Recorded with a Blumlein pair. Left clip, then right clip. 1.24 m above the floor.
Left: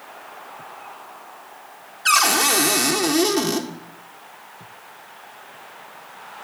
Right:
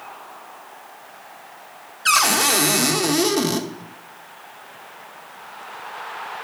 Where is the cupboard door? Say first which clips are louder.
Even; straight ahead, 1.0 m.